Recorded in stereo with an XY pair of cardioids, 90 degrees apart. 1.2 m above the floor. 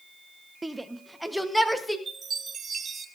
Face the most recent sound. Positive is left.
turn(degrees=-45)